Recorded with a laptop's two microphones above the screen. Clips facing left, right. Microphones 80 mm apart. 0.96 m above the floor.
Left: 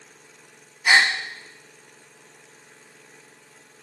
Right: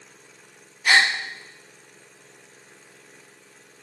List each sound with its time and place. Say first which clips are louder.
0.8 s a gasp: left 1 dB; 15° left (ahead or behind), 0.8 m